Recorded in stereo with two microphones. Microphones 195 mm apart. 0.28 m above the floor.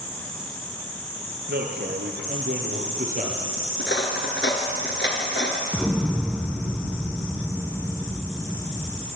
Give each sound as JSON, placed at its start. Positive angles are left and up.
{"t": 1.5, "sound": "a man speaking", "side_deg": -75, "distance_m": 4.0}
{"t": 3.8, "sound": "cutlery clinking", "side_deg": 70, "distance_m": 2.5}
{"t": 5.7, "sound": "an explosion", "side_deg": 5, "distance_m": 2.5}